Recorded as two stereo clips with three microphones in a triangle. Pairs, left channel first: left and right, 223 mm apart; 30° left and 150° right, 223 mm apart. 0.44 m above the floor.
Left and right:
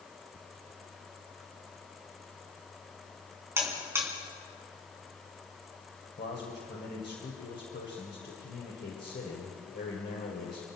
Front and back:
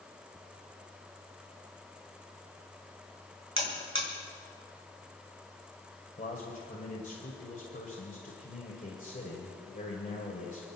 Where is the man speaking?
75° left, 2 m.